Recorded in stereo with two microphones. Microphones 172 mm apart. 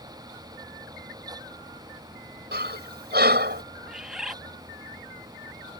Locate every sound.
2.5 s breathing: 70° right (ahead or behind)
3.9 s a bird: 5° right (ahead or behind)